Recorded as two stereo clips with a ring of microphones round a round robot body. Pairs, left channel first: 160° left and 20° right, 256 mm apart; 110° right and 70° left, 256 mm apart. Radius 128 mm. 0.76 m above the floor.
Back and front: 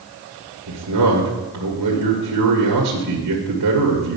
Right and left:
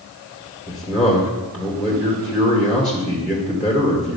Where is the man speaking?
25° right, 1.7 m.